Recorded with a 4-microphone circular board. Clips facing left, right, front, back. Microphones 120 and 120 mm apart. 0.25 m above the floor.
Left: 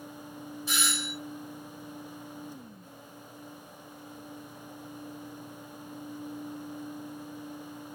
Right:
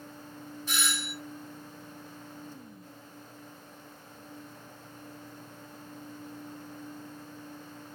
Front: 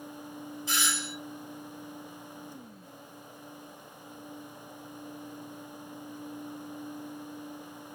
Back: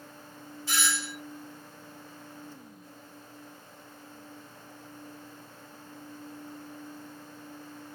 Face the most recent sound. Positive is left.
turn(degrees=35)